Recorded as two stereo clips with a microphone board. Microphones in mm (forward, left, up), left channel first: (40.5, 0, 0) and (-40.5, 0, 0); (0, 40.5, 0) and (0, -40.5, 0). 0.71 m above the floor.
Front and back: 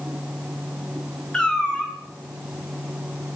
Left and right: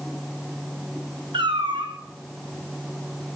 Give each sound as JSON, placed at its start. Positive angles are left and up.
{"t": 1.3, "sound": "a cat meowing", "azimuth_deg": -80, "distance_m": 3.5}